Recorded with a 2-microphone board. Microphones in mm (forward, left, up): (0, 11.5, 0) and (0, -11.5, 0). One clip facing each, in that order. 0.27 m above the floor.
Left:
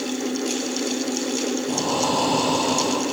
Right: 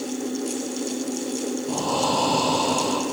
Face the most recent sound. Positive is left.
turn(degrees=0)  # may be behind; listen again after turning